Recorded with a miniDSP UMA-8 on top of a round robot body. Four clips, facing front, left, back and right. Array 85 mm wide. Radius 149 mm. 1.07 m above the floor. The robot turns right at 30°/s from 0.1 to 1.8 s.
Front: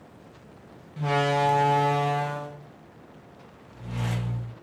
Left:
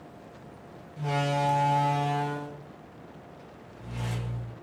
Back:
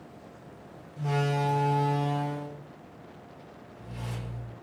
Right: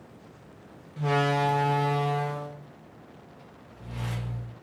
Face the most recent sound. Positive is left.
turn(degrees=-5)